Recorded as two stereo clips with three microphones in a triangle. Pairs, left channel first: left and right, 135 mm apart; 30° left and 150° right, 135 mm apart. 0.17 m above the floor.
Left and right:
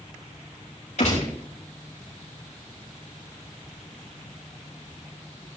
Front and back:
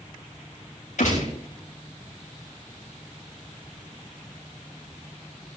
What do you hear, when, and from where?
1.0 s a gunshot: 60° left, 5.5 m